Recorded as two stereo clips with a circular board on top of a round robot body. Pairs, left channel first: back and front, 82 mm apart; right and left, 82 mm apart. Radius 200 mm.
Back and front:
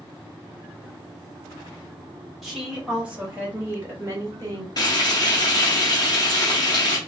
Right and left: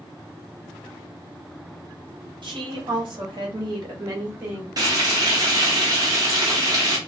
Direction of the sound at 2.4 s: 90° left.